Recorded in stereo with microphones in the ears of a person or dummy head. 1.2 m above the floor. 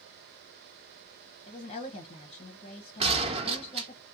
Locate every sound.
1.5 s a woman speaking: 30° left (ahead or behind), 0.8 m
3.0 s a gunshot: 35° right (ahead or behind), 0.9 m